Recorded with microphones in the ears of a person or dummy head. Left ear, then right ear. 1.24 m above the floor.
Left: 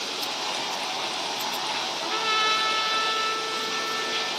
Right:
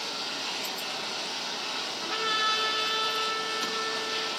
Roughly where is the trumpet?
Centre.